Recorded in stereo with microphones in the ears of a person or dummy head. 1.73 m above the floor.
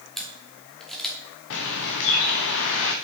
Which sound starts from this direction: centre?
A camera shutter, at 0.2 s.